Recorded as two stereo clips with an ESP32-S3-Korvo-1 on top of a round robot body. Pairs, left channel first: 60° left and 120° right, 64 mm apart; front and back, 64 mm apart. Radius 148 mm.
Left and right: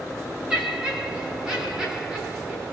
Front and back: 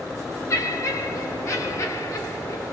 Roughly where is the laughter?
Ahead right.